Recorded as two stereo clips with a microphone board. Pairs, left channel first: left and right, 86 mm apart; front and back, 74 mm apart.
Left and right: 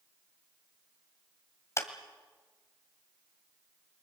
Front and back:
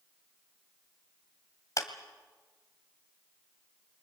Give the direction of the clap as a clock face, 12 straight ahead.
11 o'clock.